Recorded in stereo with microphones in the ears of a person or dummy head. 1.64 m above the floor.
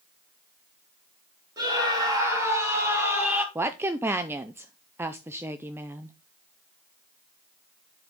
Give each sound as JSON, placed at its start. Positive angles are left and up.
{"t": 1.6, "sound": "a scream", "side_deg": -20, "distance_m": 3.0}
{"t": 3.5, "sound": "a woman speaking", "side_deg": -10, "distance_m": 0.6}